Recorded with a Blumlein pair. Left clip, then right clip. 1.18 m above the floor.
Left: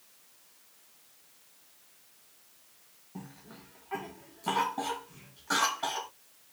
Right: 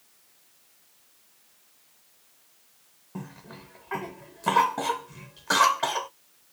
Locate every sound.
3.1 s a cough: 60° right, 0.7 m